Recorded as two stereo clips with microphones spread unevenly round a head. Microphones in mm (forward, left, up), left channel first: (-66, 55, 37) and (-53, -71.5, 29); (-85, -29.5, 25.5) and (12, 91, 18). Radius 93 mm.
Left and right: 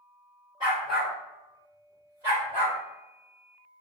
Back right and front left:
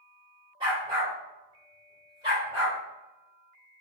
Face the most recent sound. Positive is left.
turn(degrees=-20)